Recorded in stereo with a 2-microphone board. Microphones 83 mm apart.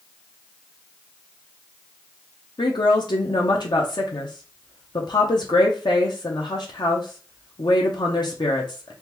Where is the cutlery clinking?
No cutlery clinking in this recording.